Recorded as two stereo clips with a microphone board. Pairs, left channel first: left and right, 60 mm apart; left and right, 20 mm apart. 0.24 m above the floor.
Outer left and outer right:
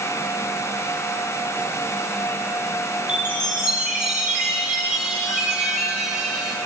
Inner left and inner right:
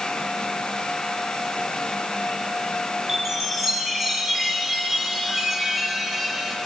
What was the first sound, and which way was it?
A chime, 5° right (ahead or behind).